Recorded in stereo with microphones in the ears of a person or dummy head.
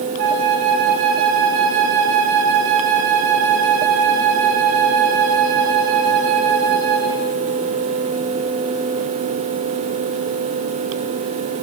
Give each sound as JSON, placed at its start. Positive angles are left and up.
{"t": 0.2, "sound": "a flute", "side_deg": -65, "distance_m": 2.0}